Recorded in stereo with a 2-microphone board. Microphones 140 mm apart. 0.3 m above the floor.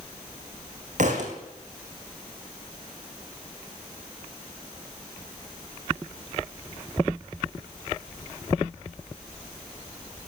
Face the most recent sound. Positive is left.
turn(degrees=-60)  # may be behind; listen again after turning